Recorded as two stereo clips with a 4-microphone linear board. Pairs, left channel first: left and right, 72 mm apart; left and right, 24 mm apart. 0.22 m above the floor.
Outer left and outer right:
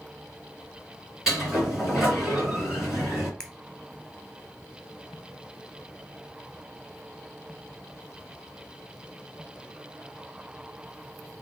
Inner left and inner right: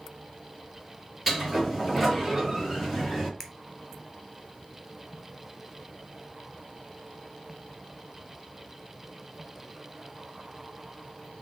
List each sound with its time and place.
1.3 s a sliding door: 5° right (ahead or behind), 3 m
3.4 s a finger snap: 10° left (ahead or behind), 0.8 m